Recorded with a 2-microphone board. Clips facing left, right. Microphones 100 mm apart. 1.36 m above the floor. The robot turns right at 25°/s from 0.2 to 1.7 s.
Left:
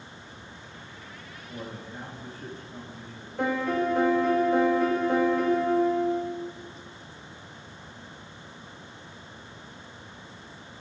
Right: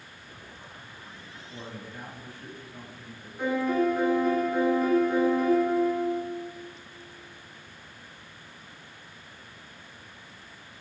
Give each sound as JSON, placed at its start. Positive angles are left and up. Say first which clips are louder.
{"t": 1.5, "sound": "a man speaking", "louder": "left 3 dB", "side_deg": 40, "distance_m": 3.0}
{"t": 3.4, "sound": "a piano", "louder": "right 1 dB", "side_deg": 65, "distance_m": 1.9}